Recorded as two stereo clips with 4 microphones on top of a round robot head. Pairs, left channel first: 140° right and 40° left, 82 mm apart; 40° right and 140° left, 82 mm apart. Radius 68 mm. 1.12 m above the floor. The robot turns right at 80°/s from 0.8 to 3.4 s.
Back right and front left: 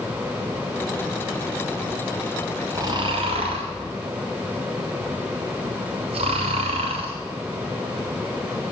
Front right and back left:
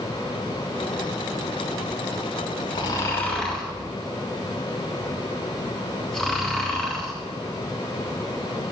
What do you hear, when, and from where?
2.8 s snoring: 10° right, 2 m; by 7.1 s 40° left, 2 m